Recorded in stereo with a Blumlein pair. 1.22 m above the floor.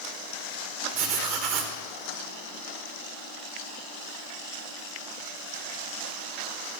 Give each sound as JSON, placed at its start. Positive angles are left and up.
{"t": 0.9, "sound": "writing", "azimuth_deg": -45, "distance_m": 1.1}